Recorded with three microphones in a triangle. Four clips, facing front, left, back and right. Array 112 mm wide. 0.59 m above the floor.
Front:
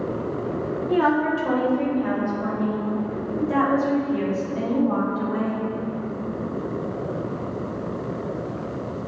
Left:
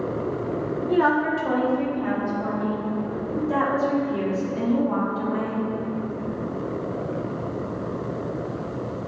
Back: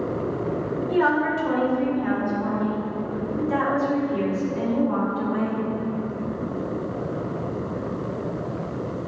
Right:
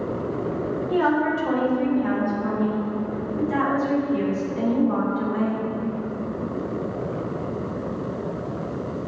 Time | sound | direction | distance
0.9 | a woman speaking | 40° left | 1.9 m